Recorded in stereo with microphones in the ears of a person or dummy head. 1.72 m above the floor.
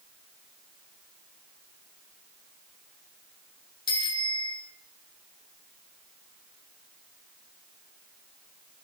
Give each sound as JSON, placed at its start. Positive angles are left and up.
{"t": 3.9, "sound": "a bicycle bell", "side_deg": 30, "distance_m": 4.0}